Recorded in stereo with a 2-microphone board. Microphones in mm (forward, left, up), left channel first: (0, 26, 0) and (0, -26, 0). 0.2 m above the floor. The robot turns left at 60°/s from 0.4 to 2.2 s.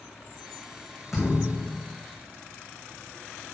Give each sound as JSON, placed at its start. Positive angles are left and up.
{"t": 1.1, "sound": "a thud", "azimuth_deg": -5, "distance_m": 5.0}